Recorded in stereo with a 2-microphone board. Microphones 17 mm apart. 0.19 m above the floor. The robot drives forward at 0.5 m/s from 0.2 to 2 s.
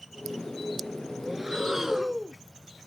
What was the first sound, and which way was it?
Breathing, 15° right (ahead or behind).